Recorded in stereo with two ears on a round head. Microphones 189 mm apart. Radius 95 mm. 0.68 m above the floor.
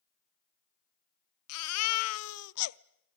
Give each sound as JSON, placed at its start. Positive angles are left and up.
{"t": 1.5, "sound": "a baby crying", "side_deg": 80, "distance_m": 0.5}